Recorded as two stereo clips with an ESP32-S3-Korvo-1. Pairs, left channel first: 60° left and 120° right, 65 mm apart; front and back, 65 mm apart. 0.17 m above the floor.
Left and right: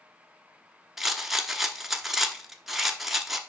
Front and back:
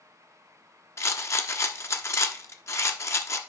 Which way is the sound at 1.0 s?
35° right.